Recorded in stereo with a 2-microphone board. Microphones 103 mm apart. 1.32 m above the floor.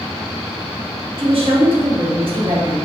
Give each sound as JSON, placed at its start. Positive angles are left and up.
{"t": 1.2, "sound": "a woman speaking", "side_deg": -55, "distance_m": 0.9}